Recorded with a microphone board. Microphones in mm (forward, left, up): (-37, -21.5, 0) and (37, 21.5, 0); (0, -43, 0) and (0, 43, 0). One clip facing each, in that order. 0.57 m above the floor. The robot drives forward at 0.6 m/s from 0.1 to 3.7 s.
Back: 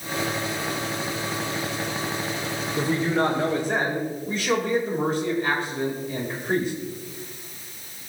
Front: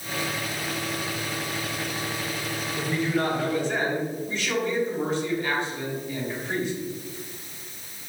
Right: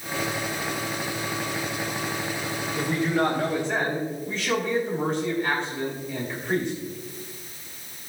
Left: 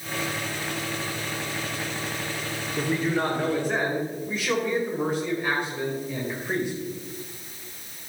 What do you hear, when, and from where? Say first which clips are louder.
2.8 s a man speaking: back 3 dB, right 1 dB; 165° left, 1.7 m; by 6.7 s 170° left, 2 m